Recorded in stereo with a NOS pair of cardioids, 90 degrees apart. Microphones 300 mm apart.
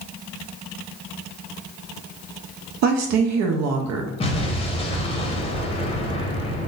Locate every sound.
2.8 s a woman speaking: 65° right, 0.6 m
4.2 s an explosion: 20° left, 0.7 m